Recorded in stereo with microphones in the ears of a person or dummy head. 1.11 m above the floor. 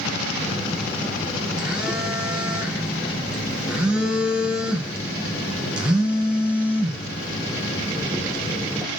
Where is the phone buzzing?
Centre (ahead or behind), 0.6 m.